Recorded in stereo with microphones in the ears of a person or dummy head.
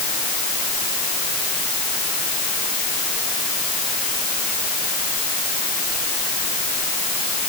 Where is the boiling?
I don't hear boiling.